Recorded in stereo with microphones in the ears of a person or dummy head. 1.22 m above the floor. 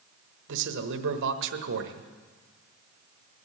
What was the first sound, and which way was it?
A man speaking, 65° right (ahead or behind).